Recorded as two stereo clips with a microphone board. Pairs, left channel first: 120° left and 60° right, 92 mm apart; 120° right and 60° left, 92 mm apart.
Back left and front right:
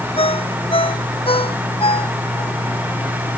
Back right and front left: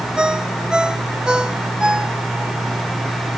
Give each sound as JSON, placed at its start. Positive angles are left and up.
{"t": 0.2, "sound": "a ringtone", "azimuth_deg": 140}